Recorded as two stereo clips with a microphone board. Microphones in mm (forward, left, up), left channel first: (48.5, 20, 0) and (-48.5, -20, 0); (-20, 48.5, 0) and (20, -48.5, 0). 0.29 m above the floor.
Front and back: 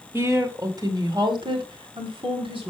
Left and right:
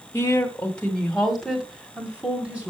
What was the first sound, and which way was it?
A woman speaking, 160° left.